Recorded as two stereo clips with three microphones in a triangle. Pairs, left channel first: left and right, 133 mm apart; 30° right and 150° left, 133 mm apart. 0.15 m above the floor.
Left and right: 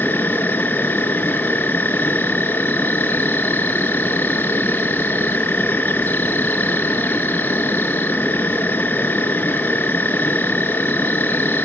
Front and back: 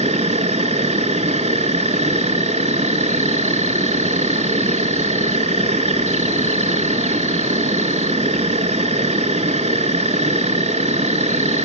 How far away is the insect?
About 0.8 m.